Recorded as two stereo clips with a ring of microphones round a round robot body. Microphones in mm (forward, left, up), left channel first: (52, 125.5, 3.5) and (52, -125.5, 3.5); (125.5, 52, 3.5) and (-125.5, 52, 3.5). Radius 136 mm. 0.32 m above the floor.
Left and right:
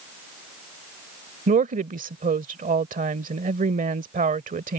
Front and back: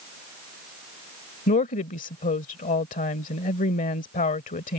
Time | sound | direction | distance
1.5 | a woman speaking | 45° right | ?